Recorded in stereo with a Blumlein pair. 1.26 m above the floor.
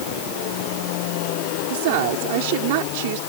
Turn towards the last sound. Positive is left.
turn(degrees=-50)